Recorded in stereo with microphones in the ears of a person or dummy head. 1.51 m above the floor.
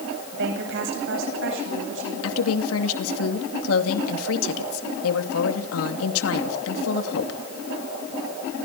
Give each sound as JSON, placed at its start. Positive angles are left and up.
{"t": 0.3, "sound": "a woman speaking", "side_deg": -65, "distance_m": 9.5}
{"t": 2.2, "sound": "a woman speaking", "side_deg": 85, "distance_m": 2.5}